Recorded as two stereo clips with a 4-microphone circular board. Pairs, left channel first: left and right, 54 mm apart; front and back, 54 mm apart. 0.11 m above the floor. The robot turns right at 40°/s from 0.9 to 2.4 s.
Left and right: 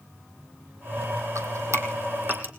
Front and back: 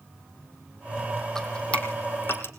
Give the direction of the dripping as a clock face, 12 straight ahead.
3 o'clock.